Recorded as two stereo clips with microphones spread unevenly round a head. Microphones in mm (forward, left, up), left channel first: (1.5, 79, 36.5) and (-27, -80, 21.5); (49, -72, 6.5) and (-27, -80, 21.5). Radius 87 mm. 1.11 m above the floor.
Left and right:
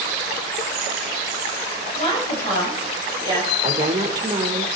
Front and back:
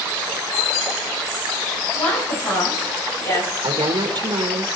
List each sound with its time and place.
1.9 s a woman speaking: 25° left, 6.5 m; by 3.5 s 10° left, 6.5 m
3.6 s a woman speaking: 160° right, 1.5 m